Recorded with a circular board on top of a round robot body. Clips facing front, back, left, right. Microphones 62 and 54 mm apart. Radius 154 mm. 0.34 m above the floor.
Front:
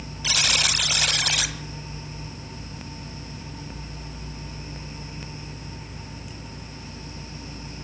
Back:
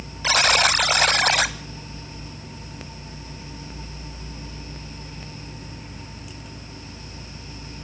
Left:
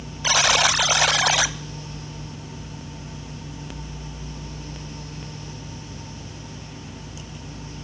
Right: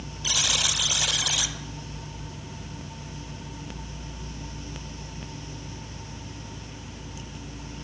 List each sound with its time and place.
0.2 s a buzzer: 130° left, 0.5 m